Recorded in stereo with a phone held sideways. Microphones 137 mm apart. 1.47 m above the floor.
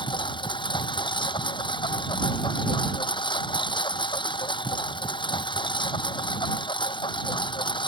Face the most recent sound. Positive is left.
turn(degrees=30)  # may be behind; listen again after turning